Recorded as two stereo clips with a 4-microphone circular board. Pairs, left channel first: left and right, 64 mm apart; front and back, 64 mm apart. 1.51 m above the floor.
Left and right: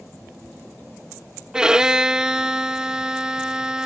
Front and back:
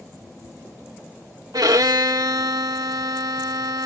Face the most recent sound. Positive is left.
turn(degrees=-170)